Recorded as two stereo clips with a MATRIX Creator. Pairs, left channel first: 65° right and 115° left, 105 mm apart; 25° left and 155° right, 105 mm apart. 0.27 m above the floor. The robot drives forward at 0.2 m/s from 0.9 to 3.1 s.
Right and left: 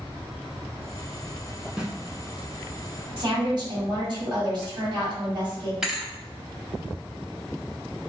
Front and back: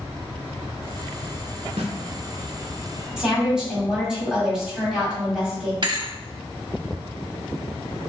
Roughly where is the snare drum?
Behind.